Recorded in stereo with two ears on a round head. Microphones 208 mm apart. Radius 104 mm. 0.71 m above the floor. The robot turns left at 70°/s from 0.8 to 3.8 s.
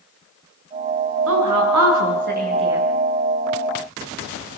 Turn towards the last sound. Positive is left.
turn(degrees=120)